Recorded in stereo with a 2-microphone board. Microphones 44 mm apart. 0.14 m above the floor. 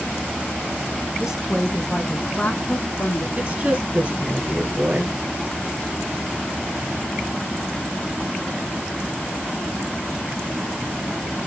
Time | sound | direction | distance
1.2 | a woman speaking | 20° right (ahead or behind) | 1.1 m
3.4 | a woman speaking | 30° right (ahead or behind) | 3 m